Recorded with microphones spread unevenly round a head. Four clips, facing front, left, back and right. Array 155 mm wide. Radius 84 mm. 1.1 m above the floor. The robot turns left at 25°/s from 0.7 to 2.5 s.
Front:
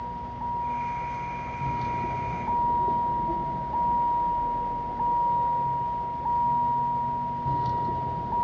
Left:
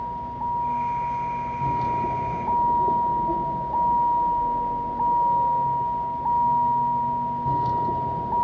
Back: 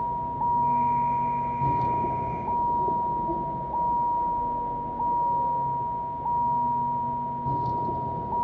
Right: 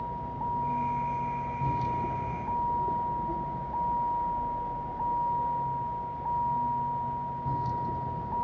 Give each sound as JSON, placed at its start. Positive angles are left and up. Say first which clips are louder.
{"t": 0.0, "sound": "a vehicle", "louder": "left 5 dB, back 6 dB", "azimuth_deg": 160}